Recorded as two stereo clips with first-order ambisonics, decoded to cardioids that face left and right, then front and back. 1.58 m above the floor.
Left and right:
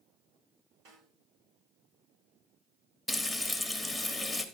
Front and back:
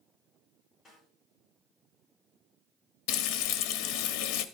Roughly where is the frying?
Ahead.